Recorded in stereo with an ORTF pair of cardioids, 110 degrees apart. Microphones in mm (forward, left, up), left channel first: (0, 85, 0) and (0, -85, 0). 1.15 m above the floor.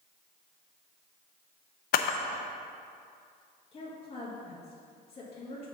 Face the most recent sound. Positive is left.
turn(degrees=35)